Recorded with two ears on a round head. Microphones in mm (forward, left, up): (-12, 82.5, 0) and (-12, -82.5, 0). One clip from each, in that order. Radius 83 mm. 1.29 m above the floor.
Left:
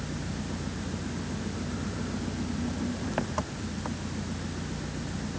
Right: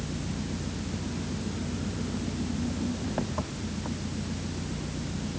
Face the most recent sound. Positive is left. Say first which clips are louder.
# right 1 dB
turn(degrees=60)  # may be behind; listen again after turning